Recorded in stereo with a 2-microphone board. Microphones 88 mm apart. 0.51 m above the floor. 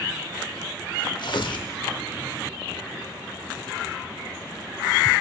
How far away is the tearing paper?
About 0.6 m.